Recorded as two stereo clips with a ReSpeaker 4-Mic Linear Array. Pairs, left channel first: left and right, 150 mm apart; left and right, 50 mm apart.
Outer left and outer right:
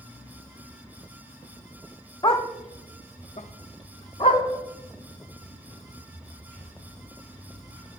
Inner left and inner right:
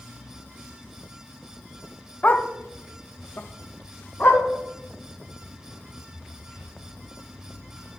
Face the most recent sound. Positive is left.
turn(degrees=15)  # may be behind; listen again after turning